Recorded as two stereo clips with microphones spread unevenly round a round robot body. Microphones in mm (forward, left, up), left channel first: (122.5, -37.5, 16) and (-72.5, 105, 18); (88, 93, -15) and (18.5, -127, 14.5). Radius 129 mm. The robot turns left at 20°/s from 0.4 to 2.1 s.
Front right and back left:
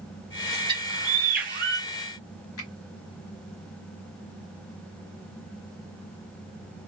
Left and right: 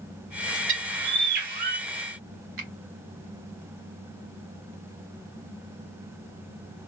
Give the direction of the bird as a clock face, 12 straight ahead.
5 o'clock.